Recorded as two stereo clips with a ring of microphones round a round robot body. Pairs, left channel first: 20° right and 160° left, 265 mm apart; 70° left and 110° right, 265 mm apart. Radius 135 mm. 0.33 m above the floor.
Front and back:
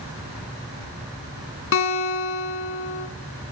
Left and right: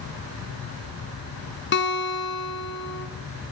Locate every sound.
1.7 s a guitar: 20° left, 1.8 m